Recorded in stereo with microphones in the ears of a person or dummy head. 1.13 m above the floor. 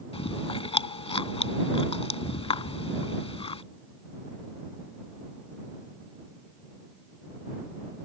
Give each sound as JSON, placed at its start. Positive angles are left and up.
{"t": 0.1, "sound": "chewing", "side_deg": 30}